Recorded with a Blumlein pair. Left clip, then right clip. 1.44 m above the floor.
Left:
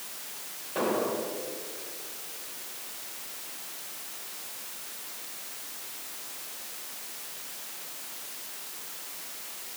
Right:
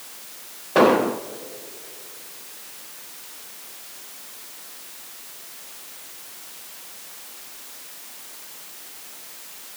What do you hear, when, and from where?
0.8 s an explosion: 35° right, 1.1 m